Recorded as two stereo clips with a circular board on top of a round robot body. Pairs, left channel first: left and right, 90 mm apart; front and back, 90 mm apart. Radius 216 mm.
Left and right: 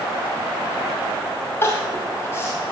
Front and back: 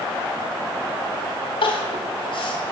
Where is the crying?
25° left, 2.5 m.